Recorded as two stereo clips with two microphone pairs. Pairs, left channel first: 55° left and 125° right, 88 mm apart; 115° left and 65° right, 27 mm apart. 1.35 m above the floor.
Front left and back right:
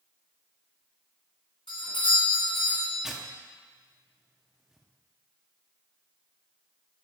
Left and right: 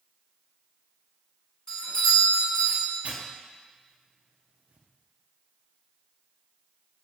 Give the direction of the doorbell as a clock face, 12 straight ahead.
10 o'clock.